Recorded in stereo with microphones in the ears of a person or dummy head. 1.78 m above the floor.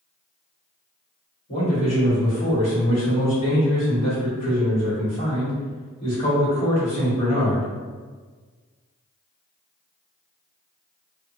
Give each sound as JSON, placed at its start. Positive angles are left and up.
{"t": 1.5, "sound": "a man speaking", "side_deg": 30, "distance_m": 1.7}